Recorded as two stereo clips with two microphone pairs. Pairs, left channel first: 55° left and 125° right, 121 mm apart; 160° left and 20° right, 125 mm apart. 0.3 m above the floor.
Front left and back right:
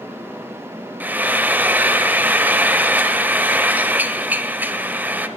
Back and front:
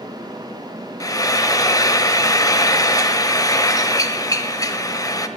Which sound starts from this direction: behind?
Frying, at 1.0 s.